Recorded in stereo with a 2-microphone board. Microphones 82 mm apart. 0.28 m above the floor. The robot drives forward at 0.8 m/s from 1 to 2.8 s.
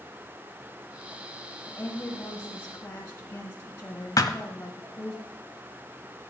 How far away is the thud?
About 0.7 m.